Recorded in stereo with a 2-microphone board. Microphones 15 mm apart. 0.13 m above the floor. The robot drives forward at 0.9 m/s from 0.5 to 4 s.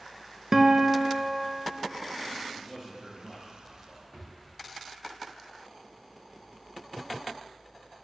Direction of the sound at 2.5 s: 5° left (ahead or behind).